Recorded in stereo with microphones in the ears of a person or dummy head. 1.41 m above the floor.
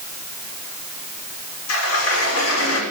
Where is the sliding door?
85° left, 5.5 m.